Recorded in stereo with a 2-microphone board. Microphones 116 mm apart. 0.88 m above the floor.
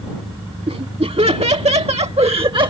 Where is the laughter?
65° right (ahead or behind); by 2.7 s 40° right (ahead or behind).